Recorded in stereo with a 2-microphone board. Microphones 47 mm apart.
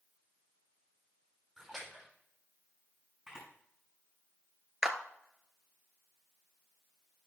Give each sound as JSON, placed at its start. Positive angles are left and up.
{"t": 1.6, "sound": "a splash", "side_deg": 0, "distance_m": 5.5}
{"t": 3.3, "sound": "a camera shutter", "side_deg": -10, "distance_m": 5.5}
{"t": 4.8, "sound": "a clap", "side_deg": -15, "distance_m": 1.1}